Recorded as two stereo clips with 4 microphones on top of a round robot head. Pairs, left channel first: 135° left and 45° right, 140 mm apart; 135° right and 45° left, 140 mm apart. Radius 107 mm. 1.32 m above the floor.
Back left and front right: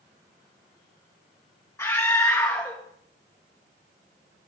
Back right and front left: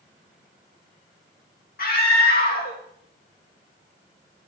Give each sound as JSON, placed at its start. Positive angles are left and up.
{"t": 1.8, "sound": "a scream", "azimuth_deg": -150, "distance_m": 3.0}